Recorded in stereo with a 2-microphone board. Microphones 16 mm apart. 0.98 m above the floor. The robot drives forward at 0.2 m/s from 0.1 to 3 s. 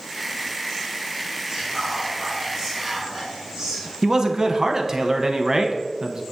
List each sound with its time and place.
1.5 s whispering: 20° right (ahead or behind), 2.5 m; by 3.9 s 15° right (ahead or behind), 2.5 m
4.0 s a man speaking: 35° right (ahead or behind), 0.6 m